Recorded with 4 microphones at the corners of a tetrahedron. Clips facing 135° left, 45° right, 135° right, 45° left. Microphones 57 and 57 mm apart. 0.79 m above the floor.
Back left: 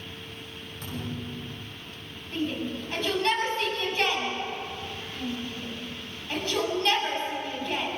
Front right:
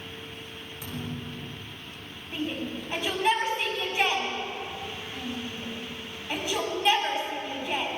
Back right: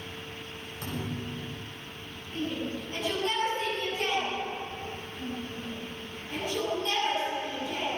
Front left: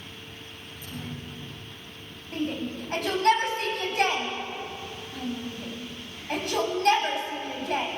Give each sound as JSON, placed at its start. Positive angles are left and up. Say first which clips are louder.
{"t": 0.8, "sound": "a thud", "louder": "back left 1 dB, back right 3 dB", "azimuth_deg": -130, "distance_m": 8.5}
{"t": 2.3, "sound": "a shout", "louder": "back left 2 dB, front left 3 dB", "azimuth_deg": 30, "distance_m": 6.5}